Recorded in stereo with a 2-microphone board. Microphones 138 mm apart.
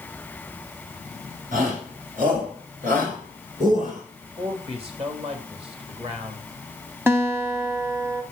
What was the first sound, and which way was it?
A shout, 70° right (ahead or behind).